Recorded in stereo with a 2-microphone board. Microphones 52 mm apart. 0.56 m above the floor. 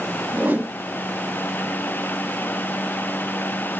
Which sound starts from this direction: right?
A whoosh, at 0.3 s.